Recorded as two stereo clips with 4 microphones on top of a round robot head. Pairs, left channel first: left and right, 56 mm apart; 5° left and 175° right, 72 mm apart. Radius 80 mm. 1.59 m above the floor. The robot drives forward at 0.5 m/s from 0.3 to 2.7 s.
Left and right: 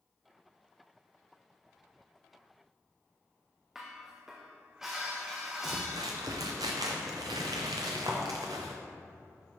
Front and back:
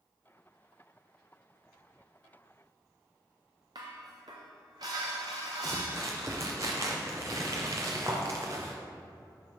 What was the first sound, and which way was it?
Dishes clattering, 175° right.